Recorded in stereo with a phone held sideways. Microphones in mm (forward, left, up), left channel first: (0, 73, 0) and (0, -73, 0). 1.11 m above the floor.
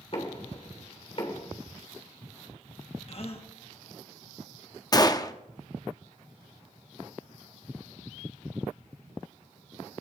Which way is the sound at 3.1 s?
45° left (ahead or behind).